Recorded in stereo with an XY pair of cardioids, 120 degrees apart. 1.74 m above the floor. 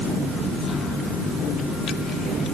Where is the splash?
No splash in this recording.